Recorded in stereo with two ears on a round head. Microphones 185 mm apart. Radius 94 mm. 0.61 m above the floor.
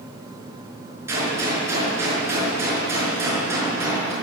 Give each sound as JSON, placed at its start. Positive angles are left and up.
{"t": 1.1, "sound": "a gunshot", "side_deg": -15, "distance_m": 5.5}